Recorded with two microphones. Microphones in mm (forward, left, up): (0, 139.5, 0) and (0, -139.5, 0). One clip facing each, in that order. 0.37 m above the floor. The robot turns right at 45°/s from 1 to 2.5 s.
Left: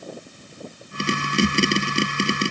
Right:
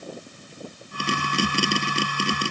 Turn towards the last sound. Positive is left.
No sound to turn to.